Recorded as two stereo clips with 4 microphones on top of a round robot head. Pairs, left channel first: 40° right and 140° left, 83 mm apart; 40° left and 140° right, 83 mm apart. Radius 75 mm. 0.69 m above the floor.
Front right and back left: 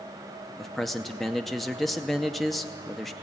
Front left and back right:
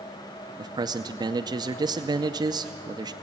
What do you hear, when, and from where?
0.6 s a man speaking: 130° right, 0.7 m